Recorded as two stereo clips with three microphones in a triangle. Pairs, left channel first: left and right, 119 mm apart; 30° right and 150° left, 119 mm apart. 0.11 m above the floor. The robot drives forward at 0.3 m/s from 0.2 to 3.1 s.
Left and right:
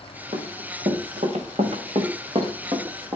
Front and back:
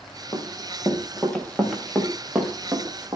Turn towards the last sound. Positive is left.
turn(degrees=-140)